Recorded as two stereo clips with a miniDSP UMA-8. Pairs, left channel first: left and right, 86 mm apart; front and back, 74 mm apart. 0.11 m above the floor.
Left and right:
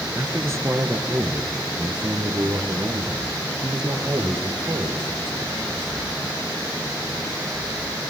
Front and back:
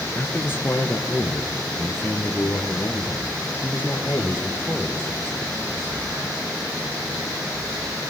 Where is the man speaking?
45° right, 2 m; by 6.0 s 65° right, 4.5 m.